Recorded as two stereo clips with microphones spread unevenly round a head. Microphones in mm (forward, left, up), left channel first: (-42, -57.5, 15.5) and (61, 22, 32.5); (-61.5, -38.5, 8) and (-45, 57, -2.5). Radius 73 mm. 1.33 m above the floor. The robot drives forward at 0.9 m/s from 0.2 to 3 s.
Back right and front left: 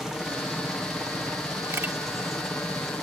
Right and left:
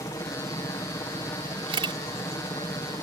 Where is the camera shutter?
110° left; by 2.0 s 115° left.